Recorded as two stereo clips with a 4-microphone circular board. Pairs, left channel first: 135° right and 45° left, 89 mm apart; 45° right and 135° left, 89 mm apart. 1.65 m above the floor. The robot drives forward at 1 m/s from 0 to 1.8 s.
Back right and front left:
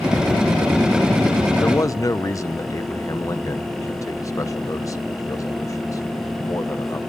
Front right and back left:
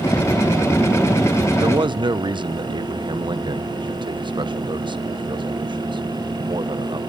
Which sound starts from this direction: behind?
A man speaking, at 1.6 s.